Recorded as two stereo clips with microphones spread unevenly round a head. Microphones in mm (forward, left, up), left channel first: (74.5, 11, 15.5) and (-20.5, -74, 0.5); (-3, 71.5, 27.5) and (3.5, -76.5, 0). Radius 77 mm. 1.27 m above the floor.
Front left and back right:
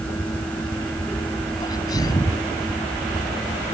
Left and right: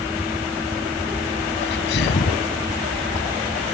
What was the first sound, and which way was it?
A sneeze, 110° left.